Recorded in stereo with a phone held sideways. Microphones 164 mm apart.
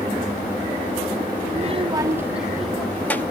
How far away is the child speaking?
About 0.5 m.